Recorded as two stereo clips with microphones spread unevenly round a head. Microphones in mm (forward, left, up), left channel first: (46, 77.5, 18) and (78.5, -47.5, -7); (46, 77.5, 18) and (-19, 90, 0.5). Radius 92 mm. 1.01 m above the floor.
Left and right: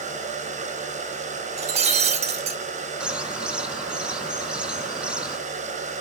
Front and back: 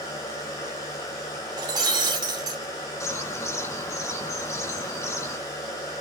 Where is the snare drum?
No snare drum in this recording.